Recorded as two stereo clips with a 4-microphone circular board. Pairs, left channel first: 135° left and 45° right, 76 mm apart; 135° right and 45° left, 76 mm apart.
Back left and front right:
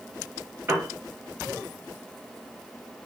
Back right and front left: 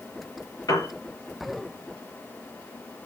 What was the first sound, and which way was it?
A piano, 105° right.